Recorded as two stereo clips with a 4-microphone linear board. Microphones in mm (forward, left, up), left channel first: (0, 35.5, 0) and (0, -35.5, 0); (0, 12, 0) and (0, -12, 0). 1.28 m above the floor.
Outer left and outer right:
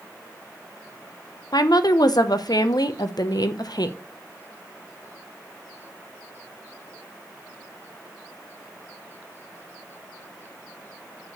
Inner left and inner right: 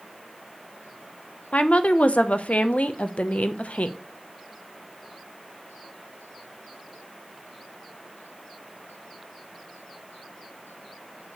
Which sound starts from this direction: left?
A woman speaking, at 1.5 s.